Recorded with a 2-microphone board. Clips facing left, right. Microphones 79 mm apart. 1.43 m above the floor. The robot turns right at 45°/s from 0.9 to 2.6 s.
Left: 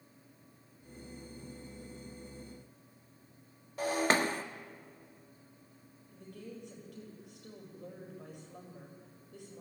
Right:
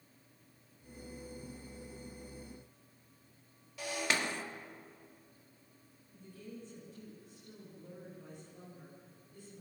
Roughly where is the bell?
I don't hear a bell.